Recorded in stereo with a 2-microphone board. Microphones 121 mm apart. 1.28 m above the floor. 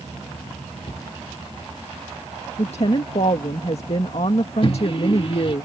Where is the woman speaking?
55° left (ahead or behind).